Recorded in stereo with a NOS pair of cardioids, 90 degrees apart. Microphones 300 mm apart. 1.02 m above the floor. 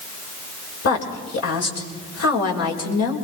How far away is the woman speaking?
About 5 m.